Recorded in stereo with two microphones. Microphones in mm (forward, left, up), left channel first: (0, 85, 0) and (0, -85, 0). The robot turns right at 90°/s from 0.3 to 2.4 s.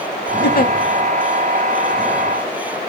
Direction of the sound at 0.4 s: 65° left (ahead or behind).